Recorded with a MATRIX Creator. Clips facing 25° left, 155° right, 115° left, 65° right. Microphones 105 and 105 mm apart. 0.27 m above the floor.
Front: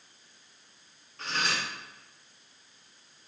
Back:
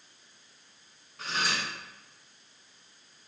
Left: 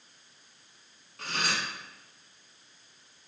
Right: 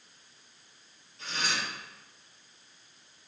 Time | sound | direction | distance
1.2 | cutlery clinking | 120° left | 1.6 m